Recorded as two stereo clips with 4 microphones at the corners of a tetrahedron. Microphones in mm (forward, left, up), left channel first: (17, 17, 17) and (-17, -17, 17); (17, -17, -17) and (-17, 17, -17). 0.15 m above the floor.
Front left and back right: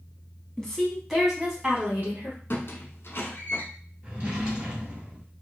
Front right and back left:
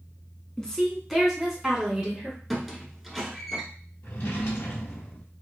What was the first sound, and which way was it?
A woman speaking, straight ahead.